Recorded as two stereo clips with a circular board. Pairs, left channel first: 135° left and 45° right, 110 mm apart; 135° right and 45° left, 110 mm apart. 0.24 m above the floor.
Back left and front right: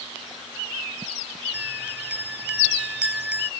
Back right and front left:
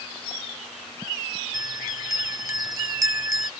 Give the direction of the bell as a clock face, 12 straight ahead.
11 o'clock.